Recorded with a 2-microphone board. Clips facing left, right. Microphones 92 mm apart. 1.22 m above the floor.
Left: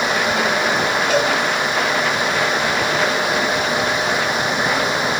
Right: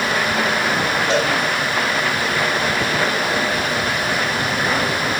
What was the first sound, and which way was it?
A cowbell, 25° right (ahead or behind).